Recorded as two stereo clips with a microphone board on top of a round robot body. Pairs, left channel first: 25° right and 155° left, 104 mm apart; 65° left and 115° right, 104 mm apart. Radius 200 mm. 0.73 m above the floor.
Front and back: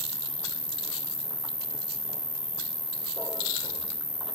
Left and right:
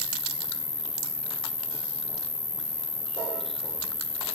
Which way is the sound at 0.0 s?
95° left.